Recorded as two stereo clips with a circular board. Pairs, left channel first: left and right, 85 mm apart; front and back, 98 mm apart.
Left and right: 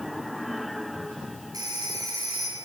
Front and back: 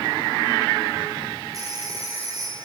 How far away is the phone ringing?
About 5 m.